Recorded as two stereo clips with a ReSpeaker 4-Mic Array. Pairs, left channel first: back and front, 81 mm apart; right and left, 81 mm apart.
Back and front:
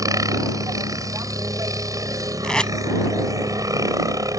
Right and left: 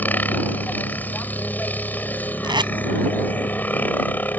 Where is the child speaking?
No child speaking in this recording.